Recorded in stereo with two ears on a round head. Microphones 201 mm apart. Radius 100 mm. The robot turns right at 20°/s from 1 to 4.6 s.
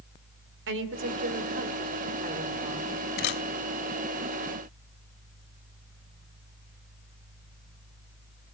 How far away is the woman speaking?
About 2.5 m.